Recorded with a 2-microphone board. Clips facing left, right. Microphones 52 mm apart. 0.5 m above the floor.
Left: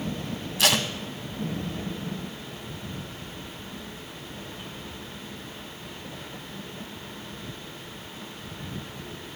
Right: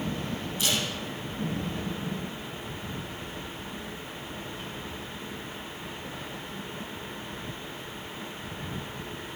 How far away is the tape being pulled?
About 0.9 m.